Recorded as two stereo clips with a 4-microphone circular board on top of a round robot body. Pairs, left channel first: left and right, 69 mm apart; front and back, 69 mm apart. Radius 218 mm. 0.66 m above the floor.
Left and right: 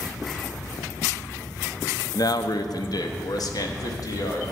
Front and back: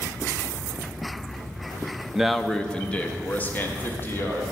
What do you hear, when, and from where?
2.1 s a man speaking: 100° left, 0.6 m; by 4.4 s 60° left, 1.8 m